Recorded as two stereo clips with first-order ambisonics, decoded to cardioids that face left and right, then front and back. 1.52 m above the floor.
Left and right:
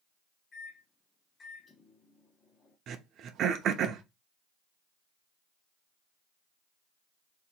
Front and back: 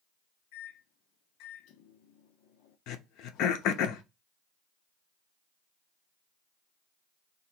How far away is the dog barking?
No dog barking in this recording.